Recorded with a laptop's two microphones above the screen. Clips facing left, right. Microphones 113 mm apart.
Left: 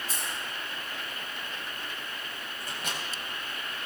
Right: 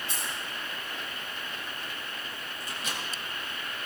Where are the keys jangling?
40° left (ahead or behind), 5.5 m.